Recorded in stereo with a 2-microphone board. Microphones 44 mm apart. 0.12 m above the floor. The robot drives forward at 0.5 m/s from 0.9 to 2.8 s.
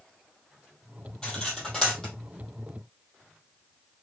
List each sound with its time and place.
1.2 s cutlery clinking: 20° left (ahead or behind), 2.0 m; by 2.1 s 15° left (ahead or behind), 2.5 m